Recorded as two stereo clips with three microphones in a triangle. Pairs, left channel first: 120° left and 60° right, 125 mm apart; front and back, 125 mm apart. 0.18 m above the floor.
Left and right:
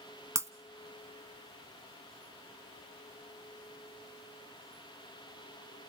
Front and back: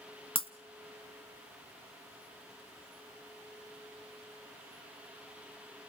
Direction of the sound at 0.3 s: 5° right.